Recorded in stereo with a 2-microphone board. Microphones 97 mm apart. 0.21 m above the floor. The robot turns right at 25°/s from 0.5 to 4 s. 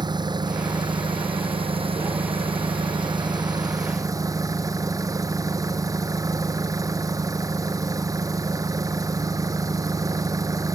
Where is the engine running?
125° right; by 10.8 s 40° right.